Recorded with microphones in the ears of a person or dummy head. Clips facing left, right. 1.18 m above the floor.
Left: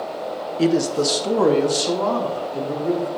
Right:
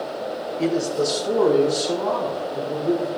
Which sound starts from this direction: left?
A man speaking, at 0.6 s.